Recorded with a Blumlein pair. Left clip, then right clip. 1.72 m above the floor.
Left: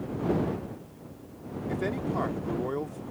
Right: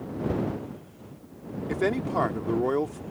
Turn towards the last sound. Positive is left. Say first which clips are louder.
# right 5 dB
turn(degrees=-70)